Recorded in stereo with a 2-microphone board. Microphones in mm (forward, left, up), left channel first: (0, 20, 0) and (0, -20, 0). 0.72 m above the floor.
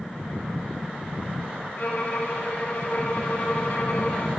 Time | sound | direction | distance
1.8 | a violin | 50° left (ahead or behind) | 1.6 m